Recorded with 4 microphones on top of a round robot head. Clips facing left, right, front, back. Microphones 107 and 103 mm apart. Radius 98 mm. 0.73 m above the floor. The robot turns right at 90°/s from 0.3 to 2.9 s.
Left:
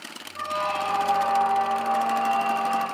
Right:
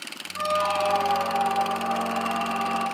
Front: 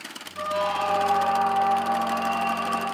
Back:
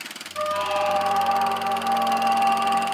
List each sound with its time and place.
0.3 s a squeak: 175° right, 0.9 m; by 2.8 s 50° left, 0.9 m